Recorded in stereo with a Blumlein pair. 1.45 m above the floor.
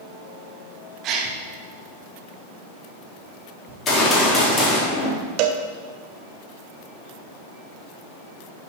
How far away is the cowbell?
About 0.9 m.